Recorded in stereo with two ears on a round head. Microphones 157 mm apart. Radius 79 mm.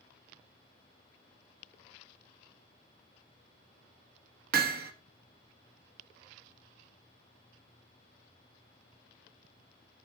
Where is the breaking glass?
I don't hear breaking glass.